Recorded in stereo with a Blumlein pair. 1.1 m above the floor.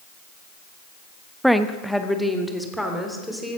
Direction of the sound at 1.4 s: Straight ahead.